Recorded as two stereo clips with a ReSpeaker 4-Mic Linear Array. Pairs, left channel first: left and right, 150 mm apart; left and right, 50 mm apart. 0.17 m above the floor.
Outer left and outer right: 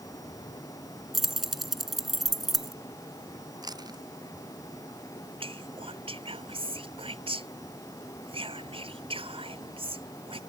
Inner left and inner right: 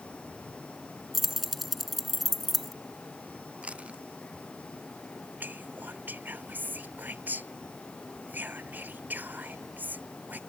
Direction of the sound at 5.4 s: 40° right (ahead or behind).